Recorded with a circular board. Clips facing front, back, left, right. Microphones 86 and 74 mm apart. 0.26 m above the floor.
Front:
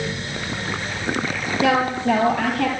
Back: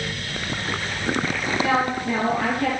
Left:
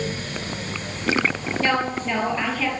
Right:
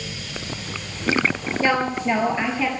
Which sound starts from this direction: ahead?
A woman speaking, at 1.6 s.